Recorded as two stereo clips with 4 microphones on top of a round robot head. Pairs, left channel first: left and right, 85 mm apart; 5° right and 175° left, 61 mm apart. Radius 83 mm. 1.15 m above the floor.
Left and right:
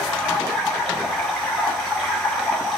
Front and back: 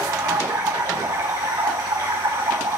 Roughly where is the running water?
Behind.